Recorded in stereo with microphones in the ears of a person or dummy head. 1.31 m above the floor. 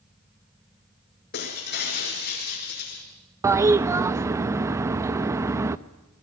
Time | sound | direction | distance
1.3 | breaking glass | 50° left (ahead or behind) | 5 m
3.4 | a toilet flushing | 15° right (ahead or behind) | 0.7 m